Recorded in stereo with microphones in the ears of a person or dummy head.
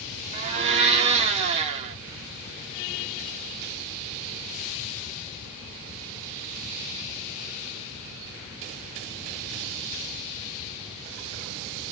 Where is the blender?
30° right (ahead or behind), 0.8 m.